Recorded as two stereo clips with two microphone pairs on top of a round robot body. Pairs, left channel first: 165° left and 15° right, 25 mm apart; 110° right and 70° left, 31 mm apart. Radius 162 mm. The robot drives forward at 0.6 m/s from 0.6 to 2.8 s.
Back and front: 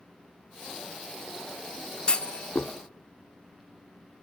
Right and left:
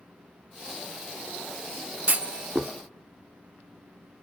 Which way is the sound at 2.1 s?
110° left.